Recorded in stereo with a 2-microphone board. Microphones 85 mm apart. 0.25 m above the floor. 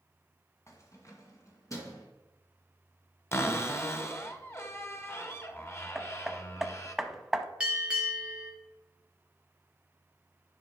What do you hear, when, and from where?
0.7 s keys jangling: 35° left (ahead or behind), 1.7 m; by 2.1 s 40° left (ahead or behind), 2.5 m
3.3 s a cupboard door: 30° left (ahead or behind), 1.1 m
6.0 s hammering: centre (ahead or behind), 0.8 m
7.6 s a bell: 10° right (ahead or behind), 3 m